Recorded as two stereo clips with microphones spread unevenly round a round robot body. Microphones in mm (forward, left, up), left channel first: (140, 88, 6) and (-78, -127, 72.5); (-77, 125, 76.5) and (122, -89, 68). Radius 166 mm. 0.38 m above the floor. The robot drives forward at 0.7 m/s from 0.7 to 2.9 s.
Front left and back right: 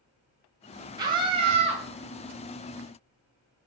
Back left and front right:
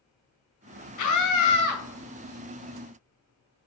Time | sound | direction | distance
1.0 | a scream | 140° left | 2.5 m